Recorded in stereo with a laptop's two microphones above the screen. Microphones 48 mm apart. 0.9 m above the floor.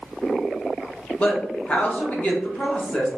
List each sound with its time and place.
1.2 s a woman speaking: 25° left (ahead or behind), 0.8 m